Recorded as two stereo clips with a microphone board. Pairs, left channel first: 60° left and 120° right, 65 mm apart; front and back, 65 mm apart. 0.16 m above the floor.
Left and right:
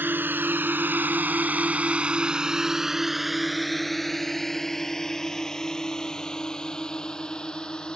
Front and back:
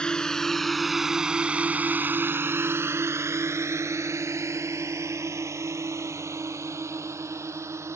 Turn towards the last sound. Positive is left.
turn(degrees=135)